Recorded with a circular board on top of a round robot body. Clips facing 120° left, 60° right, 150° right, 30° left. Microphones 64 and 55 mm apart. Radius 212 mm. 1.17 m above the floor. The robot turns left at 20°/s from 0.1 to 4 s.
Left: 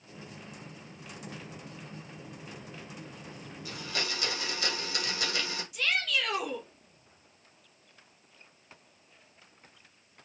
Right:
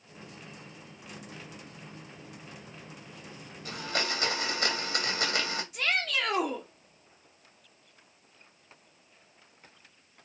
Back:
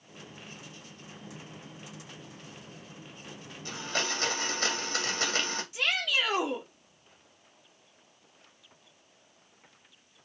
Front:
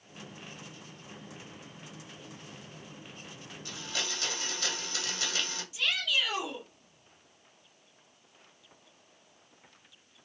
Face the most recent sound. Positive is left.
turn(degrees=-115)